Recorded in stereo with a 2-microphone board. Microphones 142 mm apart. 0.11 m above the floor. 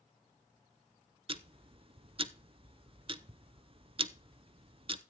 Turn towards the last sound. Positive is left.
turn(degrees=-40)  # may be behind; listen again after turning